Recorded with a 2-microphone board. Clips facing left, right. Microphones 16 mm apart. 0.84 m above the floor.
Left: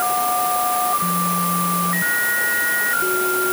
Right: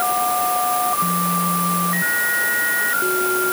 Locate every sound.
Only background noise.